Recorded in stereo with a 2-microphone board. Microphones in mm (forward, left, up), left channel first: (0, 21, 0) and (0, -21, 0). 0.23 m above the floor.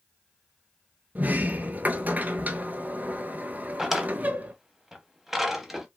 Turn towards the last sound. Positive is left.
turn(degrees=-5)  # may be behind; listen again after turning